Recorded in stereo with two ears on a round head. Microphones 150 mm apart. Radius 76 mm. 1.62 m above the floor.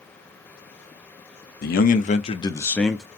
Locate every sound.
1.6 s a man speaking: 65° left (ahead or behind), 0.8 m; by 3.0 s 5° right (ahead or behind), 0.7 m